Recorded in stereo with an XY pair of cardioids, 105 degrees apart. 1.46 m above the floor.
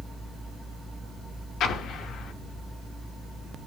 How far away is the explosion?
About 0.6 m.